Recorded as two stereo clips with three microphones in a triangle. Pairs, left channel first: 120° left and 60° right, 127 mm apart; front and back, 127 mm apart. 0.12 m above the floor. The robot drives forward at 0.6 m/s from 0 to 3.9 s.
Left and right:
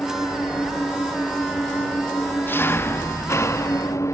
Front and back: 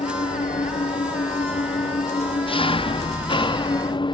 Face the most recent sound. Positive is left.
turn(degrees=50)